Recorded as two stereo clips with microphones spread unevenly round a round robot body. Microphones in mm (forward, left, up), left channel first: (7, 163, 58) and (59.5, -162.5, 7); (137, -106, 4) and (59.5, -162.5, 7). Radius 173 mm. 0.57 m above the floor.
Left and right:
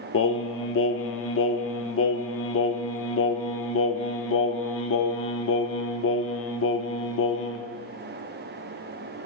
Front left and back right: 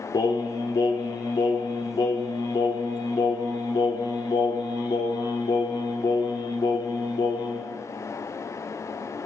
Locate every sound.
0.1 s singing: 55° left, 1.0 m